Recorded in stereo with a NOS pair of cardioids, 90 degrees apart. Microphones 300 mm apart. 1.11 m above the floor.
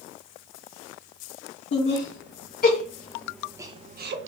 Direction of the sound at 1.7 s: 50° left.